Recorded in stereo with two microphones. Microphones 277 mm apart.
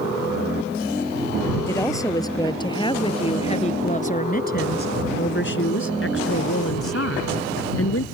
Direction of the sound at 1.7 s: 10° left (ahead or behind).